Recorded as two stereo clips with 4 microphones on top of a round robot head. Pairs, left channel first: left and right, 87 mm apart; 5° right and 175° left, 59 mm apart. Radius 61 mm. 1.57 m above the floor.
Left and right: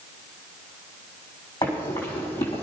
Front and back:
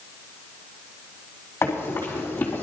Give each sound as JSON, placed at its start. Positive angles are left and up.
{"t": 1.6, "sound": "running footsteps", "azimuth_deg": 40, "distance_m": 4.0}